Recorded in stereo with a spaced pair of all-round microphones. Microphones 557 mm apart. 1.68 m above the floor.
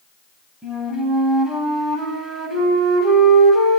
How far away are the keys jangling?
No keys jangling in this recording.